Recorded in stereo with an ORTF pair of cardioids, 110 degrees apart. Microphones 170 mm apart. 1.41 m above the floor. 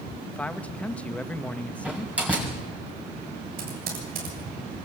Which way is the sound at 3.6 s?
65° right.